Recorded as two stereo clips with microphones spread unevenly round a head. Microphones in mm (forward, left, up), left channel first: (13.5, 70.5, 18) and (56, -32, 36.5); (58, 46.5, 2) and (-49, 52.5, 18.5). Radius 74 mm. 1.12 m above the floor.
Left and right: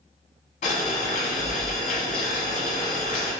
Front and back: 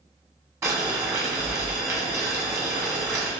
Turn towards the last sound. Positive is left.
turn(degrees=115)